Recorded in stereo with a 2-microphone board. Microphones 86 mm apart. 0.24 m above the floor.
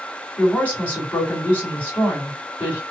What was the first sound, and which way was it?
A woman speaking, 20° left (ahead or behind).